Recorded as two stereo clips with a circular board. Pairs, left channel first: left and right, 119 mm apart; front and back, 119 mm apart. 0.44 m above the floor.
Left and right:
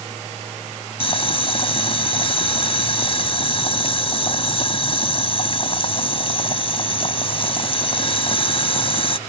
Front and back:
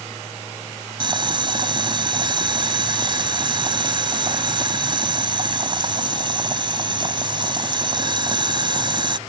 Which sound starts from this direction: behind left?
Boiling, at 1.0 s.